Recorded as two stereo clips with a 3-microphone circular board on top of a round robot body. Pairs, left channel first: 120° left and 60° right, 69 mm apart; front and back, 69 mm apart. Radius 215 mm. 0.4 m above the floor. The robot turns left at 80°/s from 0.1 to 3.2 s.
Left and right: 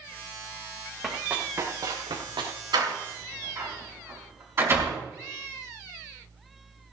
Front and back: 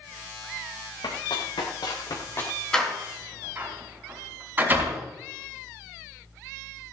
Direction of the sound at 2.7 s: 80° right.